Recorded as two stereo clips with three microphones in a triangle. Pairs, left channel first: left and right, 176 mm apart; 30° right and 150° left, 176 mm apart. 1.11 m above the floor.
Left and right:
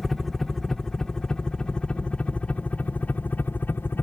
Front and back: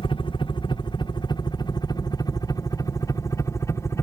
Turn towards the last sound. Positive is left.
turn(degrees=25)